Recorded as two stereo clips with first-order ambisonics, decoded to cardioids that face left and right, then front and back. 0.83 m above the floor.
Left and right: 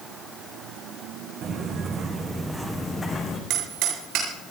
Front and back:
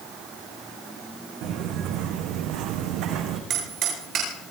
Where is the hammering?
130° right, 8.5 m.